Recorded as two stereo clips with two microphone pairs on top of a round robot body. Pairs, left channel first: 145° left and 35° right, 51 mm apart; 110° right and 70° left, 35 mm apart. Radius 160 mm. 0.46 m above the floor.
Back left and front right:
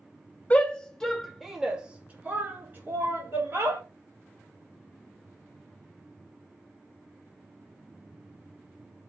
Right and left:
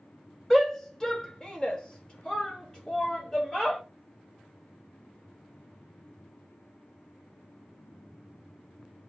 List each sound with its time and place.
0.5 s a shout: 170° left, 1.4 m; by 3.8 s 50° right, 2.5 m